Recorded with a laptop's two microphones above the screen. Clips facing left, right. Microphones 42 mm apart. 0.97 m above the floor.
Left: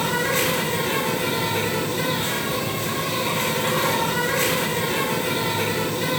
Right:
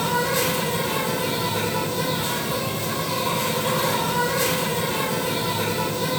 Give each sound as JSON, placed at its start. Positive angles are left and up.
{"t": 0.0, "sound": "an insect", "side_deg": 55, "distance_m": 3.0}